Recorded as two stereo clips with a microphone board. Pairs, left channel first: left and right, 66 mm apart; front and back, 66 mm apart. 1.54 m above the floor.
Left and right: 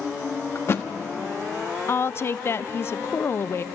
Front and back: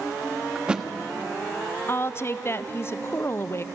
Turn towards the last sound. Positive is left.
turn(degrees=45)